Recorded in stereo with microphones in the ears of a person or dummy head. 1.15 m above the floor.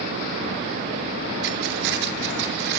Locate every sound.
1.4 s keys jangling: 55° right (ahead or behind), 1.5 m